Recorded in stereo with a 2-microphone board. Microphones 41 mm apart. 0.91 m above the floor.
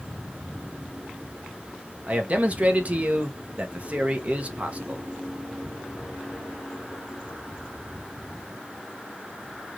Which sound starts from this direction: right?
A man speaking, at 2.1 s.